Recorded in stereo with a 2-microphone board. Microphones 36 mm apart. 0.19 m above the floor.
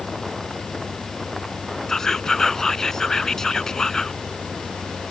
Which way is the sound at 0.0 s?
45° left (ahead or behind).